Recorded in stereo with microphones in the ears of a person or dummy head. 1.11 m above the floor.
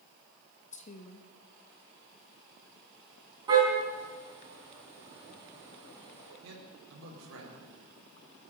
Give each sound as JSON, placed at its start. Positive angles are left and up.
{"t": 0.7, "sound": "a woman speaking", "side_deg": 45, "distance_m": 1.2}
{"t": 3.5, "sound": "a car horn", "side_deg": -25, "distance_m": 4.5}
{"t": 6.4, "sound": "a man speaking", "side_deg": -80, "distance_m": 4.0}